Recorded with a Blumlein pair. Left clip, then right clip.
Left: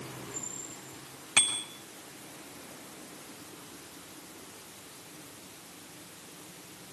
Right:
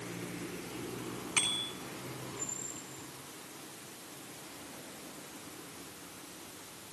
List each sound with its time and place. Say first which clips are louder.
1.4 s a bicycle bell: left 4 dB; 15° left, 6 m